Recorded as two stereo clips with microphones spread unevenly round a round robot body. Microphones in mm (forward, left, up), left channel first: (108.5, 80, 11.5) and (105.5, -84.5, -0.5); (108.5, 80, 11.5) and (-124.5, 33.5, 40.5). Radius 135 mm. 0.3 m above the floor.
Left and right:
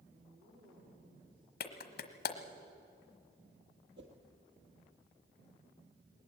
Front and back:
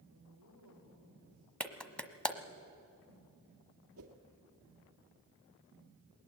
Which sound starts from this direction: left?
A clap, at 1.6 s.